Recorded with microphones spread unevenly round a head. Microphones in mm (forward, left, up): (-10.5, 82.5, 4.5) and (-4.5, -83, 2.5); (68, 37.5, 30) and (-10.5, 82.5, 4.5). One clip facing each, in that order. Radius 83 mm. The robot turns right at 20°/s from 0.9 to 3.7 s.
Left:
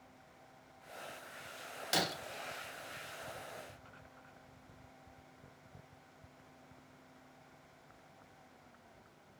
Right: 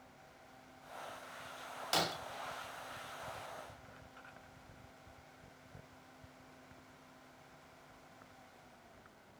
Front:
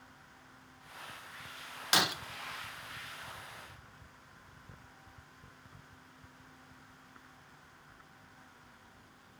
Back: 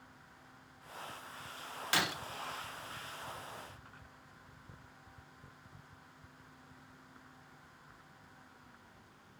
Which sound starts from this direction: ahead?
Breaking glass, at 1.9 s.